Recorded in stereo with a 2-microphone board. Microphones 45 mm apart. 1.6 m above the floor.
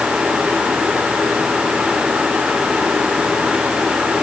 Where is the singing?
No singing in this recording.